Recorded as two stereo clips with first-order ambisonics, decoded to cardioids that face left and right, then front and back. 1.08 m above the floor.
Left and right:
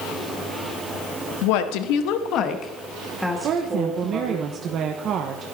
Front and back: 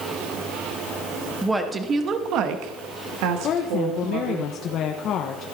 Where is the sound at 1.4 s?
95° left, 1.4 m; by 4.4 s 160° right, 2 m.